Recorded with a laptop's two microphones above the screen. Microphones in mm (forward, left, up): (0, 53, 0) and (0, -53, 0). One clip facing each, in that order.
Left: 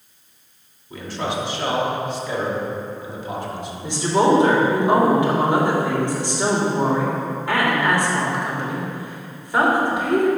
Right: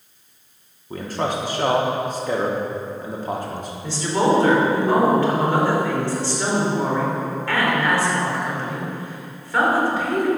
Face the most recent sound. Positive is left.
turn(degrees=20)  # may be behind; listen again after turning